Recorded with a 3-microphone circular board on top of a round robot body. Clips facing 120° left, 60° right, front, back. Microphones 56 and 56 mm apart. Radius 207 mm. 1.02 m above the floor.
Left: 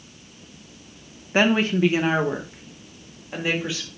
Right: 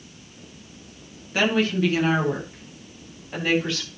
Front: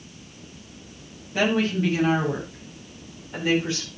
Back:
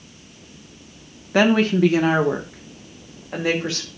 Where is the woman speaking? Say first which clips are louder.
Left 2 dB, back 6 dB; straight behind, 2 m; by 3.9 s 160° right, 5 m.